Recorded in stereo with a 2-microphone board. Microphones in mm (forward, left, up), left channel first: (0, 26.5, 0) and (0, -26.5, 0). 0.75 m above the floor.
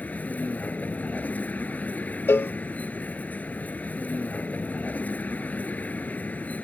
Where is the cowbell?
45° left (ahead or behind).